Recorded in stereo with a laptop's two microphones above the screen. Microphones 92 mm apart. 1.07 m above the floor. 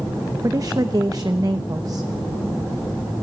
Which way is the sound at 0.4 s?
45° right (ahead or behind).